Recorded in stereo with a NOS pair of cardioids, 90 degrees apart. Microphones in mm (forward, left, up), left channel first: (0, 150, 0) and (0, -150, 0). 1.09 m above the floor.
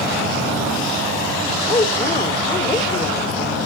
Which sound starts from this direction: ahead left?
A woman speaking, at 1.7 s.